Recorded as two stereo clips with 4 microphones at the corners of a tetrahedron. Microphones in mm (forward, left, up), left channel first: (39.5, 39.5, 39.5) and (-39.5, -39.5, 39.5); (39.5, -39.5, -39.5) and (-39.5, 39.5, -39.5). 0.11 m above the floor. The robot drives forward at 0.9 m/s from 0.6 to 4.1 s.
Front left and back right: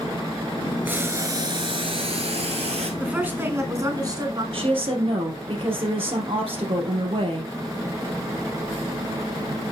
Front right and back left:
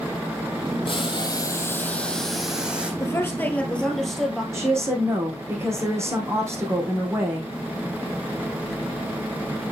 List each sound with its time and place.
0.8 s boiling: 65° right, 1.2 m; by 2.9 s 145° right, 1.8 m
3.0 s a woman speaking: 65° right, 1.6 m; by 4.4 s 130° right, 1.7 m
4.5 s a woman speaking: 165° right, 3.5 m